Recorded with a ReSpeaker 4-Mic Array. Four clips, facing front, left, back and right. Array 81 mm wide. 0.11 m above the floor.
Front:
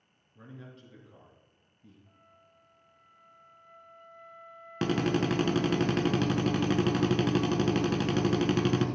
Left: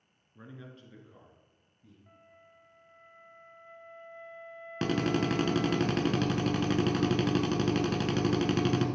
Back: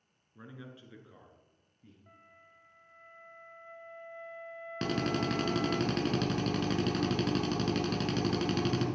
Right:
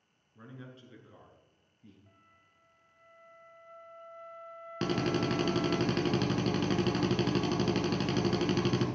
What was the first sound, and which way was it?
A man speaking, 150° left.